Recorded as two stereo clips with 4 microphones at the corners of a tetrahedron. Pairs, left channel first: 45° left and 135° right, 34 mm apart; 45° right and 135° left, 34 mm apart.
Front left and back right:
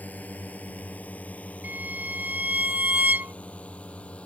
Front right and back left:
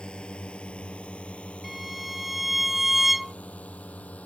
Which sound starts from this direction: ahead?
A drone, at 0.0 s.